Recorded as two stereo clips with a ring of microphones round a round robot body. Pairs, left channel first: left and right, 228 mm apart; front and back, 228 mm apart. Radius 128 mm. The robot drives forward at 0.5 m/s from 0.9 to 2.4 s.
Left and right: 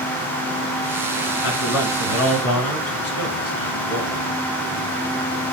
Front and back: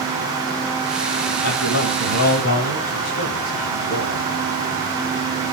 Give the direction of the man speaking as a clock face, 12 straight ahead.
10 o'clock.